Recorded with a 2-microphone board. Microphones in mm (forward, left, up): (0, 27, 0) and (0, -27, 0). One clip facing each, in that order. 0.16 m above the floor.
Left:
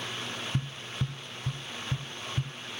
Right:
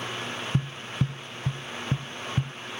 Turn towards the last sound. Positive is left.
turn(degrees=-60)  # may be behind; listen again after turning